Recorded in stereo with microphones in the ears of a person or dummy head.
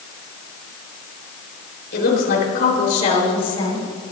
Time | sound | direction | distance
1.9 | a woman speaking | 60° left (ahead or behind) | 4 m